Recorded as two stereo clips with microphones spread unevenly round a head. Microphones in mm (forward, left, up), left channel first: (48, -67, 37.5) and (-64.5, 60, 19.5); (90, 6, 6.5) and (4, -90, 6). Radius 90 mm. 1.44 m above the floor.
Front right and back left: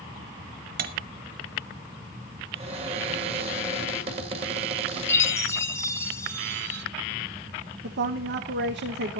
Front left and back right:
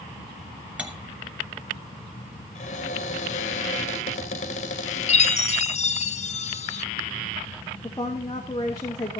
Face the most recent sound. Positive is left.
turn(degrees=120)